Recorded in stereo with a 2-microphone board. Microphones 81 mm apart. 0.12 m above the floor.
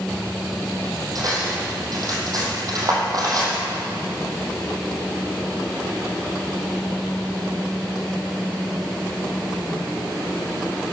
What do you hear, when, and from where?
1.1 s cutlery clinking: 45° right (ahead or behind), 3 m